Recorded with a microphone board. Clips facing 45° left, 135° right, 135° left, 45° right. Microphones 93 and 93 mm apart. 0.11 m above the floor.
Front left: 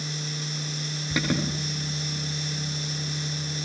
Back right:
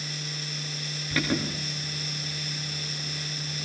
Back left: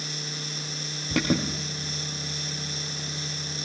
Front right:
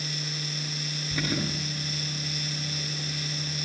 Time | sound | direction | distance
1.1 | an alarm | 120° left | 9 m